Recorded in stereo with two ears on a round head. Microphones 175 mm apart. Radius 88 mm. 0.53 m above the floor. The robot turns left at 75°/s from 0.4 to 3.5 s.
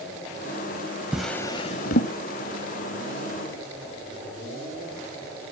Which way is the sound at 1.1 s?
5° right (ahead or behind).